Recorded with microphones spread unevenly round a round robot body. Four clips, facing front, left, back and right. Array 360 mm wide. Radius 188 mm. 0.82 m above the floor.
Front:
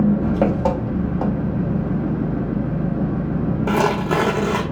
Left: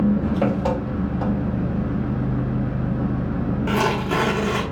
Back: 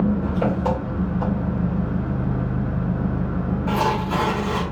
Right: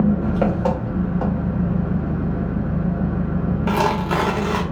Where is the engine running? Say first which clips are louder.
Right 1 dB, front 4 dB; 10° right, 1.0 m.